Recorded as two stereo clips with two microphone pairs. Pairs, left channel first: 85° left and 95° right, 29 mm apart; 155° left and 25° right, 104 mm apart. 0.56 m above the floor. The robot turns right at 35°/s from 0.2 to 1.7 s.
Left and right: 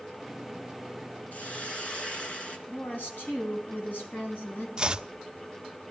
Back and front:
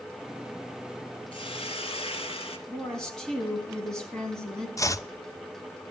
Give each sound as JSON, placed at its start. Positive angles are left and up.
{"t": 1.3, "sound": "a hiss", "azimuth_deg": 115, "distance_m": 3.0}
{"t": 2.7, "sound": "a woman speaking", "azimuth_deg": 70, "distance_m": 4.0}
{"t": 4.8, "sound": "chopping", "azimuth_deg": -155, "distance_m": 0.6}